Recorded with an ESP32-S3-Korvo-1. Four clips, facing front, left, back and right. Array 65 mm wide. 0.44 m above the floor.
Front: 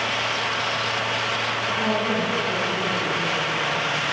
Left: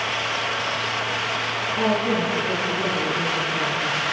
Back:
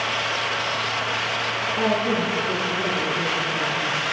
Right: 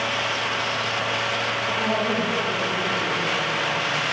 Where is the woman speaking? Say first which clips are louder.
Left 4 dB, back 3 dB; 135° left, 7.5 m.